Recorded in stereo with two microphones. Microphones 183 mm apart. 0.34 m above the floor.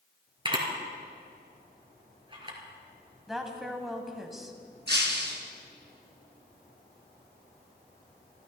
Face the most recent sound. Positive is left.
turn(degrees=-70)  # may be behind; listen again after turning